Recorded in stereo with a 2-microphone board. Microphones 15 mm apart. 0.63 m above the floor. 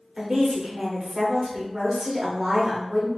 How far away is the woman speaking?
About 1.5 m.